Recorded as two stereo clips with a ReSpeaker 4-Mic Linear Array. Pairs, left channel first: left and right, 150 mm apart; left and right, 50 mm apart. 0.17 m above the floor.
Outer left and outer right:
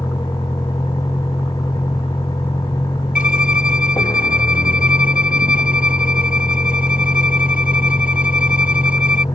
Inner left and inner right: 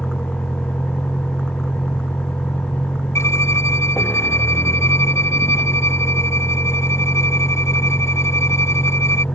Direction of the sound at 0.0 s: 25° left (ahead or behind).